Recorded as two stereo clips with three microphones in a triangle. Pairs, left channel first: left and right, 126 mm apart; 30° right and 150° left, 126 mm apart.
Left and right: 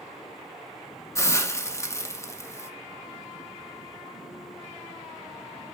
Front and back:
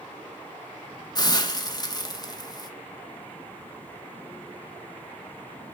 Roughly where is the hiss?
Ahead left.